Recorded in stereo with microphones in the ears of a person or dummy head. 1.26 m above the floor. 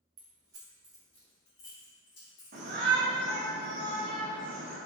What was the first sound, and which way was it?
Keys jangling, 40° right (ahead or behind).